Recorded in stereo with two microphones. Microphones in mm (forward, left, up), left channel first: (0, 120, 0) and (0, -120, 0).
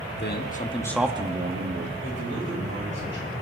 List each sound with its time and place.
0.1 s a man speaking: 45° left (ahead or behind), 1.5 m; by 1.9 s 55° right (ahead or behind), 1.5 m
2.0 s a man speaking: 55° right (ahead or behind), 5.5 m